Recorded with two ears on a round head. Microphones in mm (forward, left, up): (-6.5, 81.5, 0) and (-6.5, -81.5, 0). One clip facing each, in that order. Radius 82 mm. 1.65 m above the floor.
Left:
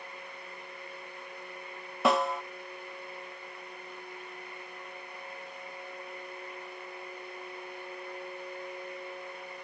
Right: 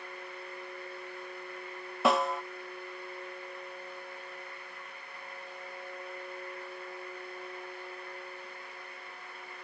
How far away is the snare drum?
About 0.5 m.